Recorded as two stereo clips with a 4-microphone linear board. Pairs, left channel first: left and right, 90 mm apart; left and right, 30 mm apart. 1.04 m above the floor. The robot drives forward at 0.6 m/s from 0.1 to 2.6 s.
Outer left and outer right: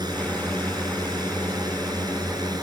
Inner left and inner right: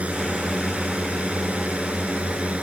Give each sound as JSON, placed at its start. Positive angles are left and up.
{"t": 0.0, "sound": "a drone", "side_deg": -50}